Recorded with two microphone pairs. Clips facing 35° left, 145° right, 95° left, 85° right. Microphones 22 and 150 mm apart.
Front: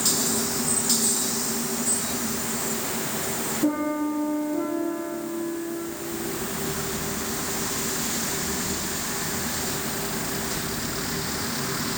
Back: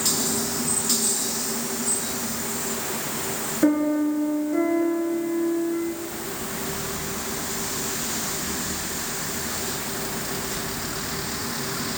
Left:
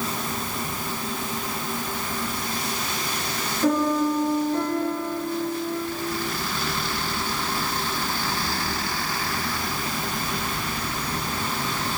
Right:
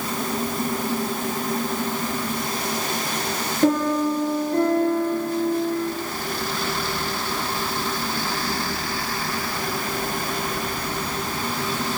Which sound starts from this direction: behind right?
A piano, at 3.6 s.